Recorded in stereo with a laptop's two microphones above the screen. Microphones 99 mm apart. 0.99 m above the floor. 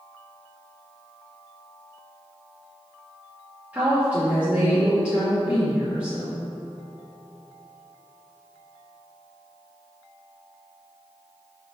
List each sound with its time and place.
3.7 s a woman speaking: 15° right (ahead or behind), 2 m